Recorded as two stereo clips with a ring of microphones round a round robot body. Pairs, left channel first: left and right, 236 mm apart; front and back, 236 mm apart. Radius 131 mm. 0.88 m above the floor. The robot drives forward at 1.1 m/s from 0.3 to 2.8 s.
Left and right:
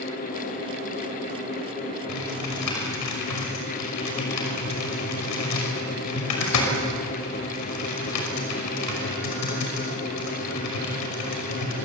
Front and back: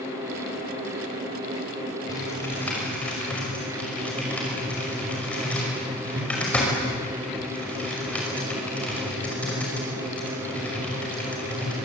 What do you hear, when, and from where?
2.1 s typing on a keyboard: 75° left, 5.5 m; by 11.8 s 85° left, 5.5 m